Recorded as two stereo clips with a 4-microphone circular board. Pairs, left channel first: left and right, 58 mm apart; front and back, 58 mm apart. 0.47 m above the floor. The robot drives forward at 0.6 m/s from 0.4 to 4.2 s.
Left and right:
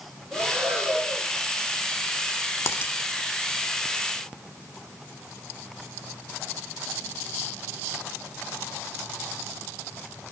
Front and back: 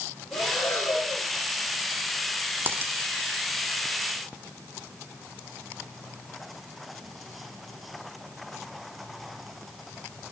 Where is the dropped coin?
125° left, 0.9 m; by 2.9 s 135° left, 1.0 m.